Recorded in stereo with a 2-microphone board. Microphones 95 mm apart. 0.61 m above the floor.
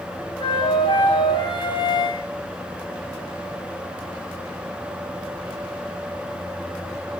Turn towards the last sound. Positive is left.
turn(degrees=55)  # may be behind; listen again after turning